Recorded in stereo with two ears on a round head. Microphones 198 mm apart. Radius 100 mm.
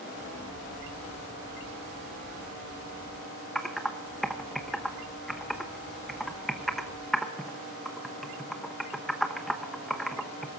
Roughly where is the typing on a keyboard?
Centre.